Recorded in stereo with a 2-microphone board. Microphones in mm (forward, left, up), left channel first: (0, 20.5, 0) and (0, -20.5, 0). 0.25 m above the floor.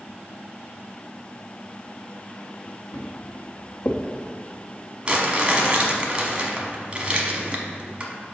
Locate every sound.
2.9 s footsteps: 75° left (ahead or behind), 2 m; by 4.0 s 70° left (ahead or behind), 1.5 m
5.0 s crumpling: 30° right (ahead or behind), 1.0 m